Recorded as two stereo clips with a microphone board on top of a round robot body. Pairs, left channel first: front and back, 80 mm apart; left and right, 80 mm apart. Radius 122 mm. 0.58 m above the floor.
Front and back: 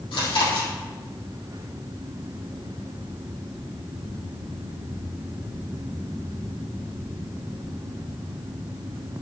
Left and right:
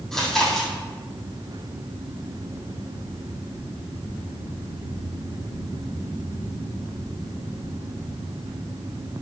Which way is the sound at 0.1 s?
5° left.